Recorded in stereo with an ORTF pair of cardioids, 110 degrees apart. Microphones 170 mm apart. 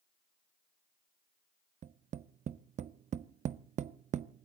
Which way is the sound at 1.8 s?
45° right.